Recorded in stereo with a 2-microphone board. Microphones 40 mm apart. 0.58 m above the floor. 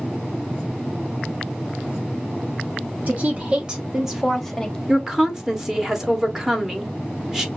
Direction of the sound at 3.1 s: 40° right (ahead or behind).